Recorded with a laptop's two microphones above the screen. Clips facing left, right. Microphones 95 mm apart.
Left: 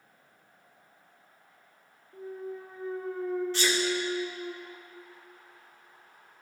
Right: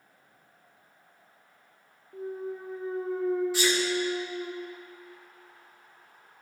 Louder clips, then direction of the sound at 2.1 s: Right 3 dB; 25° right (ahead or behind).